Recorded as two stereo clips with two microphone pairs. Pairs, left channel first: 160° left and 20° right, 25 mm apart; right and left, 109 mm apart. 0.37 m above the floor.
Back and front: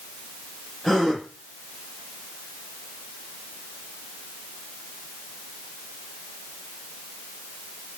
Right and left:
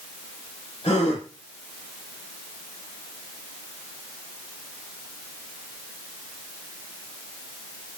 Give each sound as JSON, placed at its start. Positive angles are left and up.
{"t": 0.8, "sound": "a gasp", "azimuth_deg": -120, "distance_m": 9.5}